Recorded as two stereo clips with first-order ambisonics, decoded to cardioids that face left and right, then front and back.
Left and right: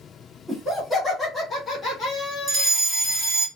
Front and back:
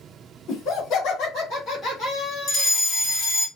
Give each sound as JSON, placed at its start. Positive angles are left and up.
{"t": 0.5, "sound": "laughter", "azimuth_deg": 5, "distance_m": 1.8}
{"t": 2.5, "sound": "a fire alarm", "azimuth_deg": 0, "distance_m": 2.0}